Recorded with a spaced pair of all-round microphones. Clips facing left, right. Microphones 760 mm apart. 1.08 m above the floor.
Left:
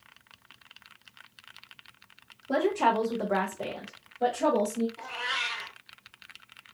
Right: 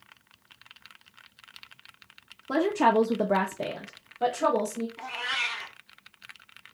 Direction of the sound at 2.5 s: 45° right (ahead or behind).